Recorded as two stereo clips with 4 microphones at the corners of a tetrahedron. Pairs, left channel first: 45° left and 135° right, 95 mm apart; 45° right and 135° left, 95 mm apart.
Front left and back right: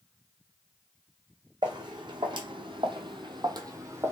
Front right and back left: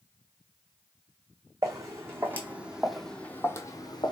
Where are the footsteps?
170° right, 1.2 m; by 4.1 s 75° right, 0.7 m.